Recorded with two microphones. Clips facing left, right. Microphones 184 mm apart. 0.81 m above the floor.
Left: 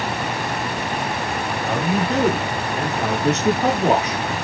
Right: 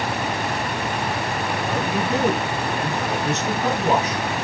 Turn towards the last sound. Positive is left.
turn(degrees=60)  # may be behind; listen again after turning